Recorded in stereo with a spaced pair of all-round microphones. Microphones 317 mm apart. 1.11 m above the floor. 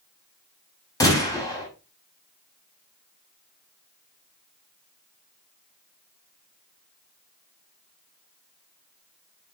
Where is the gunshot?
10° left (ahead or behind), 4.5 m.